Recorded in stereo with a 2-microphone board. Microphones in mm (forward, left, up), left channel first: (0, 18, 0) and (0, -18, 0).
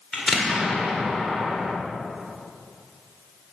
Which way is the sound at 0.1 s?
Centre (ahead or behind).